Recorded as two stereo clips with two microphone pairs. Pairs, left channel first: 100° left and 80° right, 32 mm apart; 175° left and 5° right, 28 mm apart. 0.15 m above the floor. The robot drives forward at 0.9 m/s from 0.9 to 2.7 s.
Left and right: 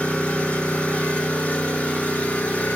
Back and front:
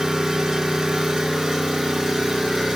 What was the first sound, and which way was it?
An engine running, 75° left.